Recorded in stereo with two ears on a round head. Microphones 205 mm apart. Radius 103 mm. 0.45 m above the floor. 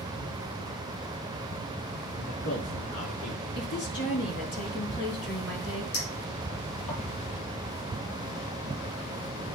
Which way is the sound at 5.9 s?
65° left (ahead or behind).